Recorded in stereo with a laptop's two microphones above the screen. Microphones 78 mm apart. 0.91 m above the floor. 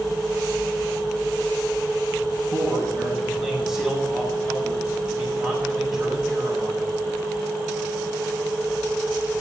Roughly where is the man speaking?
Centre.